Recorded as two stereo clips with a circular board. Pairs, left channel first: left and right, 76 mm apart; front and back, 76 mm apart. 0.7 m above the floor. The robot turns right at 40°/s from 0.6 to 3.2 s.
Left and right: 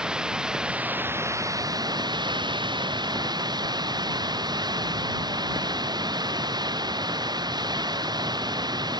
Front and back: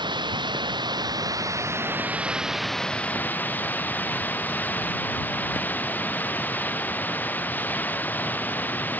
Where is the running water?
170° right; by 9.0 s 65° right.